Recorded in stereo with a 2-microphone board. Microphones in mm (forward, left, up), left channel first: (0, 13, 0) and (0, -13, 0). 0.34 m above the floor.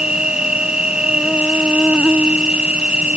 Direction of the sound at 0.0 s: 35° right (ahead or behind).